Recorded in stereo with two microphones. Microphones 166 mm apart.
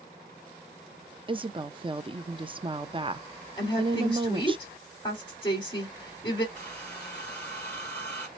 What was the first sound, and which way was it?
A woman speaking, 30° right (ahead or behind).